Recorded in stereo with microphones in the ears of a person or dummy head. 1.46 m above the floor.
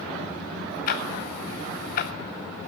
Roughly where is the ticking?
Left.